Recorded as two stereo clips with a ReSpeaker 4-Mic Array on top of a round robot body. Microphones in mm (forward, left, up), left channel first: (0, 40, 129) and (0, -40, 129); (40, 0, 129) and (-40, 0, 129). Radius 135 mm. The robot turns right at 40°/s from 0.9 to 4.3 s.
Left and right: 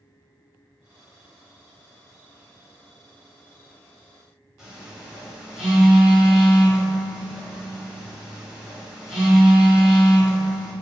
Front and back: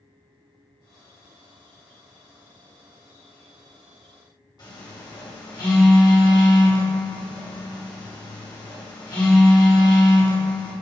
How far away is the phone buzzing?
About 1.5 m.